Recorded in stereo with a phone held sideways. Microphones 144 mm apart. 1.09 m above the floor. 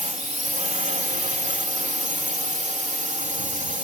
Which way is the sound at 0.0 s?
55° right (ahead or behind).